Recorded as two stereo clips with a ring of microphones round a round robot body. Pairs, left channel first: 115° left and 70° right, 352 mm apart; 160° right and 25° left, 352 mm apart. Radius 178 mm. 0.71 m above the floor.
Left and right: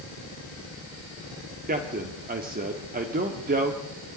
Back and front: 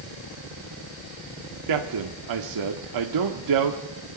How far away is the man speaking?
About 1.6 m.